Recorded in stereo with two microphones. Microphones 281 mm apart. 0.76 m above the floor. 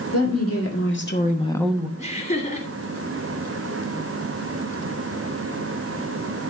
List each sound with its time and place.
0.1 s a woman speaking: 60° left (ahead or behind), 2.5 m; by 1.9 s 15° right (ahead or behind), 1.0 m
2.0 s laughter: 30° left (ahead or behind), 2.5 m